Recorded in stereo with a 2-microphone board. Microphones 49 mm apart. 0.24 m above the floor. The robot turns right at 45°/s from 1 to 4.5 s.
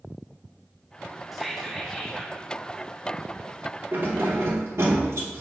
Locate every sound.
1.3 s whispering: straight ahead, 1.8 m; by 2.4 s 45° left, 1.8 m
3.9 s keys jangling: 40° right (ahead or behind), 2 m; by 5.4 s 65° right (ahead or behind), 2 m